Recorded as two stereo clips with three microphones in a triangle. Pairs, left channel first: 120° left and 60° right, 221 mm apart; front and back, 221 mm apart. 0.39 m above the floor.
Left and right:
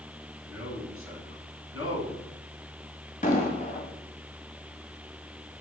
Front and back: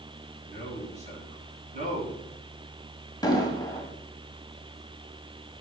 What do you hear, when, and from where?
0.4 s a man speaking: 125° left, 3.5 m
3.2 s an explosion: 70° left, 1.2 m